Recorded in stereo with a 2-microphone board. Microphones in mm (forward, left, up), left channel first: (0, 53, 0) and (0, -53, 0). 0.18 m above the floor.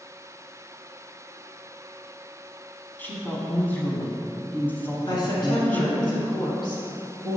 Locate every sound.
3.0 s a woman speaking: 15° left (ahead or behind), 1.1 m
5.1 s a woman speaking: 45° left (ahead or behind), 1.8 m